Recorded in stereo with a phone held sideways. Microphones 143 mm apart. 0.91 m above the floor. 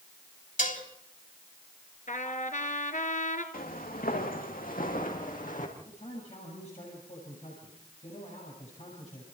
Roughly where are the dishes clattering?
Left.